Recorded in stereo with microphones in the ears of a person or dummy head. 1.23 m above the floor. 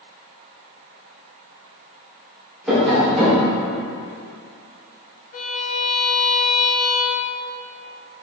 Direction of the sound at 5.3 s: 45° left (ahead or behind).